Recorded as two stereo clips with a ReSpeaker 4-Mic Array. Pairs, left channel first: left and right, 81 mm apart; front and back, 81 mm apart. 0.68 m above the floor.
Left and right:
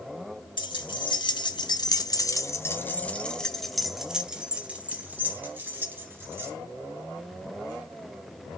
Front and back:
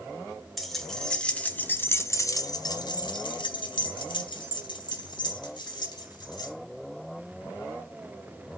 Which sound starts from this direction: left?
Keys jangling, at 0.6 s.